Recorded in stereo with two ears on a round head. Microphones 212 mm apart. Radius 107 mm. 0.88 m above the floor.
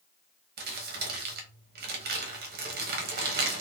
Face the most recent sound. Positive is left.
turn(degrees=-40)  # may be behind; listen again after turning